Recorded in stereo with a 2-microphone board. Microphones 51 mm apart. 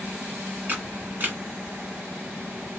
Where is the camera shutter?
40° right (ahead or behind), 1.0 m.